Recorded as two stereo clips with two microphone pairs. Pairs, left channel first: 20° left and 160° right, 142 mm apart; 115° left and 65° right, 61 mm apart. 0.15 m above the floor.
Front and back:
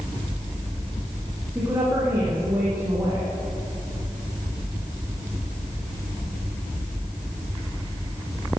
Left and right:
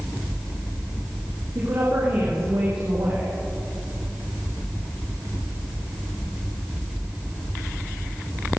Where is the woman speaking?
85° right, 7.5 m.